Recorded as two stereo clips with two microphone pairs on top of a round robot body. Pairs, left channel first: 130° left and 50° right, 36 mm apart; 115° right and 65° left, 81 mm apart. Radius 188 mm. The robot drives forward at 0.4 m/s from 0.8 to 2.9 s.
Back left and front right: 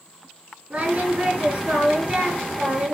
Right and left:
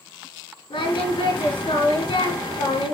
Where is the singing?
105° right, 4.5 m; by 3.0 s 115° right, 4.5 m.